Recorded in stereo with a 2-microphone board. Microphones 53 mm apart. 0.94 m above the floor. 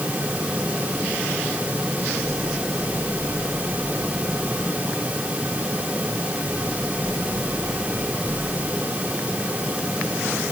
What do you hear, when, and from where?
Only background noise.